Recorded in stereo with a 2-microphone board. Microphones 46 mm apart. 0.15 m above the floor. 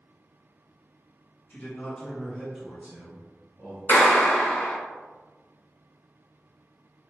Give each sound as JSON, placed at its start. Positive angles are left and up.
{"t": 1.5, "sound": "a man speaking", "side_deg": 40, "distance_m": 1.5}
{"t": 3.9, "sound": "a clap", "side_deg": 40, "distance_m": 1.5}